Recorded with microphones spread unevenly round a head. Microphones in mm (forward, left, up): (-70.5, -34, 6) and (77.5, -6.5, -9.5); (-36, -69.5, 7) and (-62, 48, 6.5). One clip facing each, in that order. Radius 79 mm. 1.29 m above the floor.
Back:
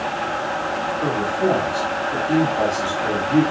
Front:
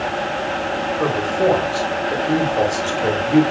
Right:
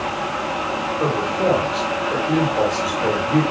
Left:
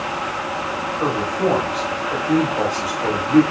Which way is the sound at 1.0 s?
10° right.